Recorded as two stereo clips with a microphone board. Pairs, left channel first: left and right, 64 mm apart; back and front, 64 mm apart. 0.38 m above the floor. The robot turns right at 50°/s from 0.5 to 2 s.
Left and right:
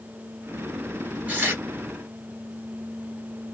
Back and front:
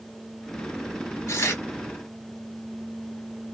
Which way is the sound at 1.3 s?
150° right.